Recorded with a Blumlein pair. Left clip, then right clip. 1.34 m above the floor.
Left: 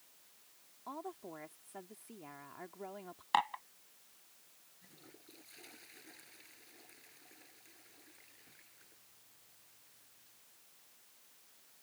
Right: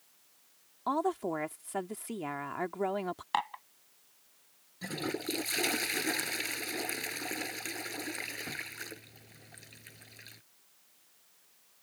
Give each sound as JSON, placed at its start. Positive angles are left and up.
{"t": 0.9, "sound": "a woman speaking", "azimuth_deg": -55}
{"t": 3.3, "sound": "dishes clattering", "azimuth_deg": 0}
{"t": 4.8, "sound": "a toilet flushing", "azimuth_deg": -40}